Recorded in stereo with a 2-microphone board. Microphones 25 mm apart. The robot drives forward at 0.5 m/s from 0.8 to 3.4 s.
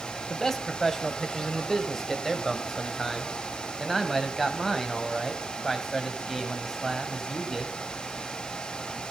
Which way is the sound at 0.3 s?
15° left (ahead or behind).